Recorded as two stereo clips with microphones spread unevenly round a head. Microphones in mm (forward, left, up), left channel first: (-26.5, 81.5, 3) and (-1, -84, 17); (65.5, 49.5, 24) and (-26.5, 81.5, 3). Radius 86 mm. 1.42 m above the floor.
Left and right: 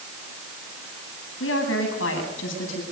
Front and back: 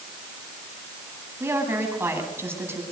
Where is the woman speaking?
95° left, 9.5 m.